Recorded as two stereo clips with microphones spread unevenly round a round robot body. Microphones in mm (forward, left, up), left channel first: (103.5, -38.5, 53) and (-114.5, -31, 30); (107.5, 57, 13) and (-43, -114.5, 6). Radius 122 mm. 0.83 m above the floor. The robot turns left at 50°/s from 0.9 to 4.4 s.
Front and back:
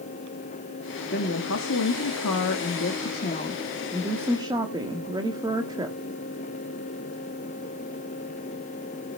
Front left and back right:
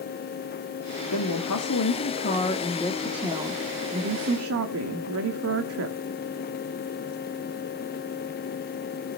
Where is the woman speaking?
55° left, 1.5 m; by 6.0 s 110° right, 1.5 m.